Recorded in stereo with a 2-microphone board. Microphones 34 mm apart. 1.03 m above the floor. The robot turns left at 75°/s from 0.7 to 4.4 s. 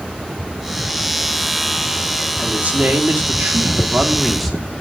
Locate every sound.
2.4 s a man speaking: 30° right, 3 m; by 4.7 s straight behind, 3 m